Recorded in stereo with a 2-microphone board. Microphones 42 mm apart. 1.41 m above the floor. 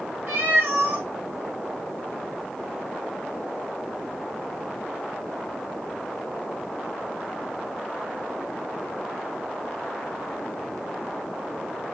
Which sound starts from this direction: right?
A cat meowing, at 0.3 s.